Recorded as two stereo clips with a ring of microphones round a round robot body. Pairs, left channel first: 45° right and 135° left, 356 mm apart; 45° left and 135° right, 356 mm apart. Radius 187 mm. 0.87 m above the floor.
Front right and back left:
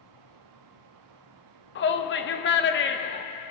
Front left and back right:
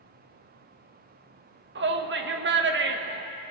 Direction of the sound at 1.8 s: 90° right.